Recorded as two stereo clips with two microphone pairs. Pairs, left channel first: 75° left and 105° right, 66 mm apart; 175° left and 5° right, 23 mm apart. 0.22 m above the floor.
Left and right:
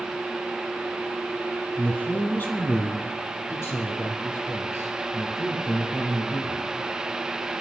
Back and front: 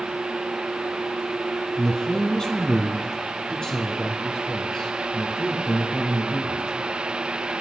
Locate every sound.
1.8 s a man speaking: 130° left, 1.3 m; by 6.7 s 115° left, 4.5 m